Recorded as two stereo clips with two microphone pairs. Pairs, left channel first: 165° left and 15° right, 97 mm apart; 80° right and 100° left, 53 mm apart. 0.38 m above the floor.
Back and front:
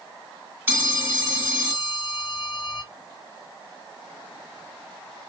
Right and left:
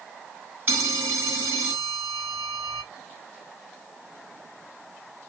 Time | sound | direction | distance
0.7 | a phone ringing | 50° left | 2.5 m